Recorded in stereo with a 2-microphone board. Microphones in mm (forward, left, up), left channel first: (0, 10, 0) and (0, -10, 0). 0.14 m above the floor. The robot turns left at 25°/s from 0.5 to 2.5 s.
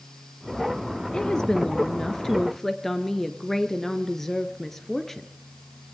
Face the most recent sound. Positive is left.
turn(degrees=20)